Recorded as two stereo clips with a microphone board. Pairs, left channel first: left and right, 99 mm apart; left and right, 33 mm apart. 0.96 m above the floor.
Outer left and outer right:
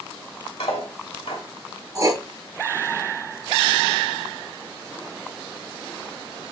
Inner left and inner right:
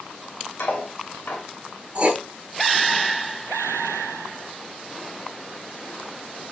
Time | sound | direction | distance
0.6 | cutlery clinking | 85° left | 1.2 m
1.9 | writing | 35° right (ahead or behind) | 0.7 m